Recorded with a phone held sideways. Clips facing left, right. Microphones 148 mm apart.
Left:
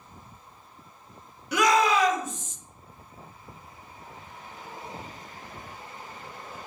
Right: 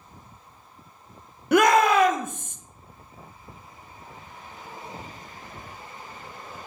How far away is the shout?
About 0.6 m.